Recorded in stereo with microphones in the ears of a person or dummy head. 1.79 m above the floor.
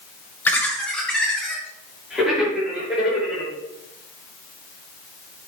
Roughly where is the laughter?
Centre.